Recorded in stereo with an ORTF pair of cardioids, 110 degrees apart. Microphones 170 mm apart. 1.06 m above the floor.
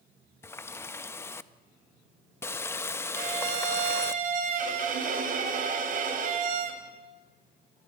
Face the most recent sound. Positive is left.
turn(degrees=-55)